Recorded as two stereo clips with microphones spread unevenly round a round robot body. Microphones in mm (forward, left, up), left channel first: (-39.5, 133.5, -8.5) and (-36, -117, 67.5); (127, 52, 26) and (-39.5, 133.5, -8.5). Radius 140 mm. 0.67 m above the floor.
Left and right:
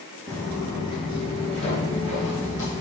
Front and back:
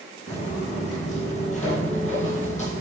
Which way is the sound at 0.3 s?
10° right.